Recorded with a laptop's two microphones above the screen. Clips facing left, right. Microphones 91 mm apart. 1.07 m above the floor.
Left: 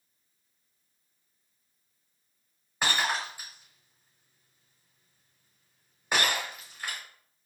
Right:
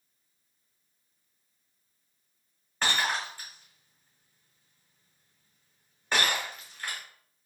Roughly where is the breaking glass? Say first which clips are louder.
Even; centre.